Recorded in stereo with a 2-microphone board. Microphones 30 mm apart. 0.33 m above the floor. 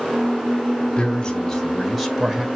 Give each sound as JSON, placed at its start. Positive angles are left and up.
{"t": 1.0, "sound": "a man speaking", "side_deg": 30, "distance_m": 1.2}